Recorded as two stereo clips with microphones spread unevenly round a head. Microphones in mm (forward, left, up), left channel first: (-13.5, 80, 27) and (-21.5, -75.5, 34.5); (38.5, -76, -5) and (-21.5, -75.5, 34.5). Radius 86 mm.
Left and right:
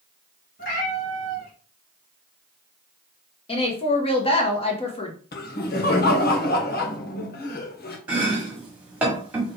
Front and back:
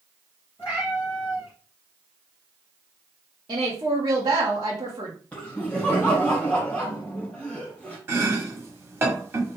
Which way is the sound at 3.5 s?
140° left.